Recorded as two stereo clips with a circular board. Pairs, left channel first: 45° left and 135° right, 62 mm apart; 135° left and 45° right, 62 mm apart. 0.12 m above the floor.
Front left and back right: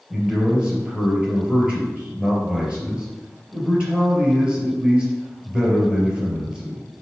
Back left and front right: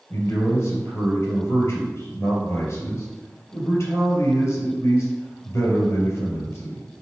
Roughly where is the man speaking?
Behind left.